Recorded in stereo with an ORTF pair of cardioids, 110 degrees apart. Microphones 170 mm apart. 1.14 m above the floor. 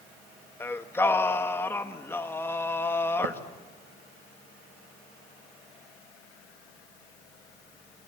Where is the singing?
15° left, 1.8 m.